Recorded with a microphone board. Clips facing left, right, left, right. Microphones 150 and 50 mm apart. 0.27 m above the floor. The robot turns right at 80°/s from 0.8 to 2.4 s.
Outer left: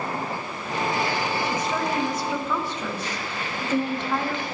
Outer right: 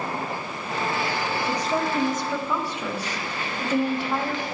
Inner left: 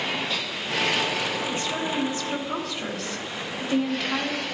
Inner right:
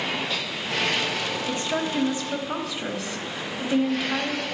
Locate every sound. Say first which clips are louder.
1.5 s a woman speaking: outer right 1 dB, inner right 1 dB; 90° right, 1.1 m; by 4.4 s 15° right, 1.1 m